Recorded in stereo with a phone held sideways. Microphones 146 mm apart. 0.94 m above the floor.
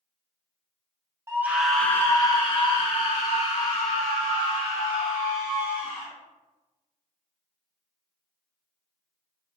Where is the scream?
20° right (ahead or behind), 0.7 m; by 6.1 s 70° left (ahead or behind), 2.5 m.